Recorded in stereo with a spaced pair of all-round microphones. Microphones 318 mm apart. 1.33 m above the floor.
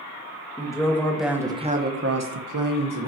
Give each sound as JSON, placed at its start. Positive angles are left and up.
{"t": 0.6, "sound": "a woman speaking", "side_deg": 10, "distance_m": 1.7}